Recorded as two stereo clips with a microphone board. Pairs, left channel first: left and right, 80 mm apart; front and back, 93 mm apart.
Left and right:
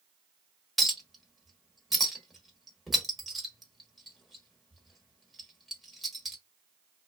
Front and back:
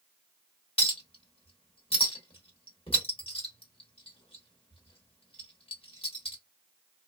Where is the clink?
Straight ahead, 1.1 m.